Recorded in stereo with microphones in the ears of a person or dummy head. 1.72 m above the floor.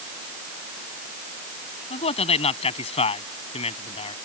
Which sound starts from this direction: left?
A man speaking, at 1.9 s.